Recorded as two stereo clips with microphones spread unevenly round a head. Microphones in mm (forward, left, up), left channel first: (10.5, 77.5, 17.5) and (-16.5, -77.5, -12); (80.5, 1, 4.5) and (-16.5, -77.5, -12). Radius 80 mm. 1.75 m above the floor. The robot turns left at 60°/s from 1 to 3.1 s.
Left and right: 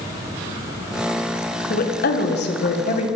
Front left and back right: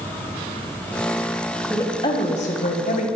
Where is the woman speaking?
120° left, 1.3 m; by 3.1 s 40° left, 1.3 m.